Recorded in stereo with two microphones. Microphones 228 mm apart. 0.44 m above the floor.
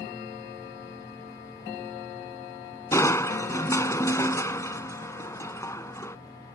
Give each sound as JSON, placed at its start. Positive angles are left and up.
{"t": 2.9, "sound": "crushing", "side_deg": 15}